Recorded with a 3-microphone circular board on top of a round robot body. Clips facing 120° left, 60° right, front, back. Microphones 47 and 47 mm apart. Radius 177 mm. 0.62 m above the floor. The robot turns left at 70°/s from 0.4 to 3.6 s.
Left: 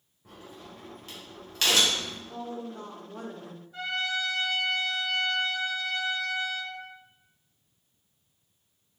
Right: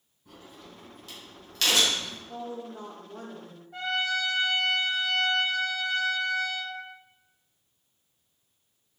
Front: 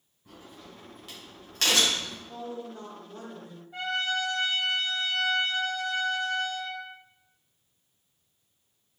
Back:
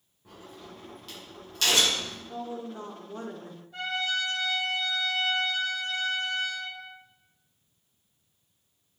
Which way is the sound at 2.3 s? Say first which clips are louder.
Right 2 dB, back 3 dB; 95° right.